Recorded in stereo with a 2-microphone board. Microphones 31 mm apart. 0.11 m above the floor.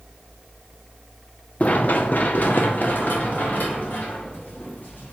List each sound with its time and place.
1.6 s running footsteps: 55° left (ahead or behind), 0.6 m; by 5.1 s 90° left, 3 m